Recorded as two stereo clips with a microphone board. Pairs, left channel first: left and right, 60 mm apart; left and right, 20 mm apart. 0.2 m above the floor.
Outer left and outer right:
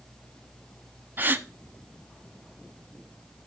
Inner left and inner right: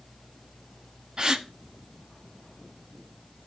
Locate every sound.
1.2 s a gasp: 35° right (ahead or behind), 0.5 m